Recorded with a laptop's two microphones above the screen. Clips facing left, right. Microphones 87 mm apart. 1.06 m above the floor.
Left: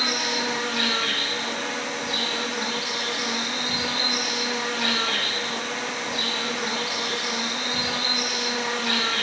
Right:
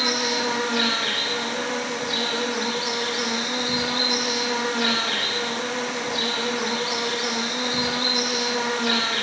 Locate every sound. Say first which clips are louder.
0.0 s an insect: right 3 dB; 60° right (ahead or behind), 1.0 m